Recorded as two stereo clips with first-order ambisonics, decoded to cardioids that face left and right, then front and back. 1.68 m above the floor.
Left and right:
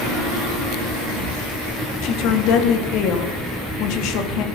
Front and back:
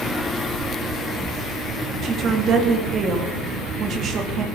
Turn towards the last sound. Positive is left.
turn(degrees=120)